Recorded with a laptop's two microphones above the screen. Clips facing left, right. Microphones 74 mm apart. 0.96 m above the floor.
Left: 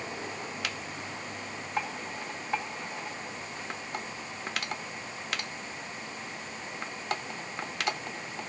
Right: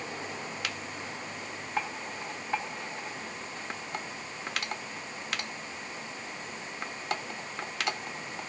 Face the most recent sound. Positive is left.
No sound to turn to.